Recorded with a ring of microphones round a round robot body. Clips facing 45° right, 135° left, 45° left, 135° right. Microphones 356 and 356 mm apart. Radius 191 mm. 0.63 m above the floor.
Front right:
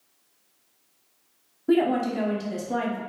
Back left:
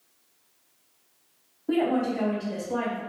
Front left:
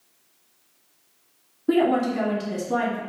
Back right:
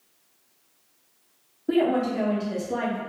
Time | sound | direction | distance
1.7 | a woman speaking | 10° right | 1.0 m